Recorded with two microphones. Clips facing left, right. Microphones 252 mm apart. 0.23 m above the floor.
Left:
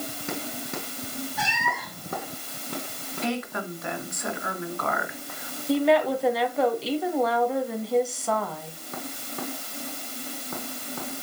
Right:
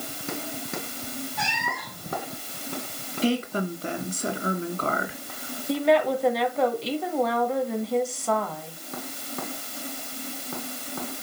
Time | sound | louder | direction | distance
1.4 | a cat meowing | left 1 dB | 5° left (ahead or behind) | 4 m
3.2 | a woman speaking | right 5 dB | 35° right (ahead or behind) | 2.5 m
5.7 | a woman speaking | left 1 dB | centre (ahead or behind) | 2.0 m